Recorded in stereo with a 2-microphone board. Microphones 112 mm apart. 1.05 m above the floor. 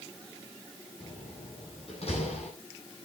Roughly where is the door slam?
Left.